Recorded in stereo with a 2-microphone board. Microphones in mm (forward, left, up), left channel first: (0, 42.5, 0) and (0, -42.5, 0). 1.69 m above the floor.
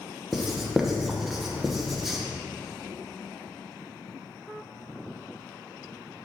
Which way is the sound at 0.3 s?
5° right (ahead or behind).